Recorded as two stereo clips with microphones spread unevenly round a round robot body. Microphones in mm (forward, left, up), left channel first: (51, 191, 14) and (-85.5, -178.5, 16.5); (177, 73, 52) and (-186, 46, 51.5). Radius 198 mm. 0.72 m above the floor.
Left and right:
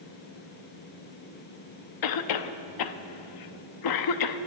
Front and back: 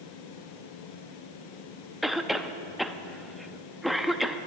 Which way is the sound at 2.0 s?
95° left.